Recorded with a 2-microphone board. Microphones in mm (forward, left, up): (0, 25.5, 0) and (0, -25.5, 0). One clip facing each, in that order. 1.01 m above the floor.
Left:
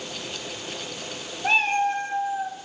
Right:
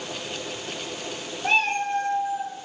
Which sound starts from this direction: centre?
A cat meowing, at 1.4 s.